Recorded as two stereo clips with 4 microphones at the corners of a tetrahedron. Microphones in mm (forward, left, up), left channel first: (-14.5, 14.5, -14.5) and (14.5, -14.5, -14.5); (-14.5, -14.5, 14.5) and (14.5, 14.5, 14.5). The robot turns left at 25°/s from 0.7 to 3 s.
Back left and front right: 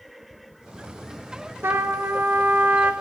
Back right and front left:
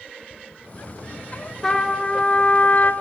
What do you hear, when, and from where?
1.6 s a trumpet: 55° right, 1.2 m; by 2.9 s 85° right, 1.2 m